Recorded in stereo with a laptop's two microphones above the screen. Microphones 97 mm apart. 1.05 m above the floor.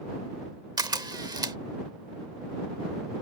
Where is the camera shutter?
45° right (ahead or behind).